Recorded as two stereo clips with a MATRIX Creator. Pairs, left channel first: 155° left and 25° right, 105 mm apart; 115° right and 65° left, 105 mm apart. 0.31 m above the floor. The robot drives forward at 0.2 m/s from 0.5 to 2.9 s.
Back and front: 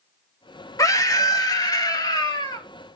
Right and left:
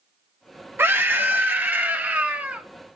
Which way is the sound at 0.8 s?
125° left.